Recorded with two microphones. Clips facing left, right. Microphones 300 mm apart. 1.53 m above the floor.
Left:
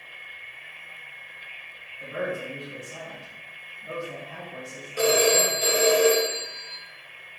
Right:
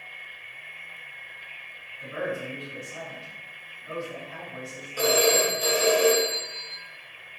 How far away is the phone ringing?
About 0.9 m.